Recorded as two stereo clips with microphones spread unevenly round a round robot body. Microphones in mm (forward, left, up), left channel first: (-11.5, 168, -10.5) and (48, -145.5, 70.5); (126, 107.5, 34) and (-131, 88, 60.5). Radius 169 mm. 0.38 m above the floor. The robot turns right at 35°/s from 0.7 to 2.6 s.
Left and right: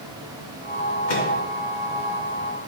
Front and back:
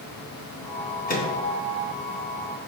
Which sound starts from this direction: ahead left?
A microwave, at 1.1 s.